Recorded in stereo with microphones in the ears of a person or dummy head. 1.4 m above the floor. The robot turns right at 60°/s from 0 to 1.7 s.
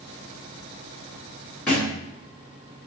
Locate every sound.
1.7 s a thud: 5° left (ahead or behind), 0.7 m